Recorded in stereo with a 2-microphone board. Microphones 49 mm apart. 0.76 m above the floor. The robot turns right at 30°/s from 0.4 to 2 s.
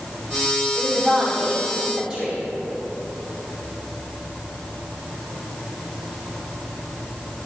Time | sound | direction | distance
0.8 | a woman speaking | 150° left | 2.5 m